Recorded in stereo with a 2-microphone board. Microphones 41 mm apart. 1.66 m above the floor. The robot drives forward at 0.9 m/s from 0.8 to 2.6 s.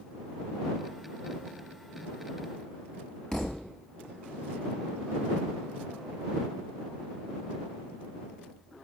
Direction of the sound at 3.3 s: 15° left (ahead or behind).